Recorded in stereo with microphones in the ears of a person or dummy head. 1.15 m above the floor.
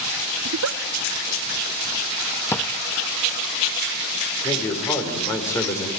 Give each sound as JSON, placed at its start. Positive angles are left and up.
{"t": 0.5, "sound": "a giggle", "side_deg": -70, "distance_m": 0.5}
{"t": 2.5, "sound": "a drawer", "side_deg": 15, "distance_m": 0.5}
{"t": 4.4, "sound": "a man speaking", "side_deg": 15, "distance_m": 5.0}